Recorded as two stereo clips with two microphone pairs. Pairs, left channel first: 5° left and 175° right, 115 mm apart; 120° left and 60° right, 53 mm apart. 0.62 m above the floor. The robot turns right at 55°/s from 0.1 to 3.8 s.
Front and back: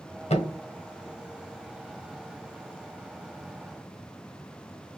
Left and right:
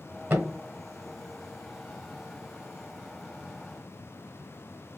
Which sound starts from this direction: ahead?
A thud, at 0.3 s.